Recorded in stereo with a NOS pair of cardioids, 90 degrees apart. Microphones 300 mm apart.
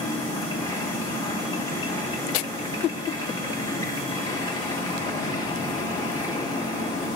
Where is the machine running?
15° left, 2 m.